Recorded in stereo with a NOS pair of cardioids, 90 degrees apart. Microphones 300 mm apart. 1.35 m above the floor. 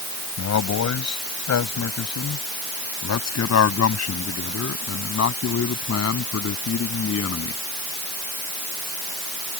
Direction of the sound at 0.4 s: 60° left.